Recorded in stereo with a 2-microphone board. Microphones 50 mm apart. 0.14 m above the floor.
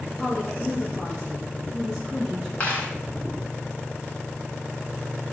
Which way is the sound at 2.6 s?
20° left (ahead or behind).